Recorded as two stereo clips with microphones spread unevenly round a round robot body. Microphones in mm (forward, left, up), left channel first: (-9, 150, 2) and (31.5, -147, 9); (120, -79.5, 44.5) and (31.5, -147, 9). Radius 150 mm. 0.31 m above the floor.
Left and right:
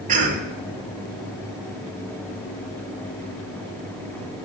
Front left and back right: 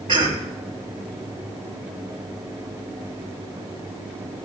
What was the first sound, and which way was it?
A cough, 145° right.